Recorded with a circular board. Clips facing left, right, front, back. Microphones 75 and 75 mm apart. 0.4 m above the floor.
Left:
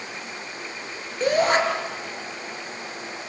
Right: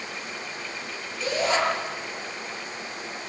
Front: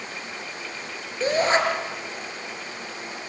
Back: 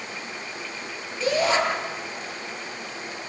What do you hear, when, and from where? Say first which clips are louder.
1.2 s a shout: left 5 dB, front 1 dB; 50° left, 7 m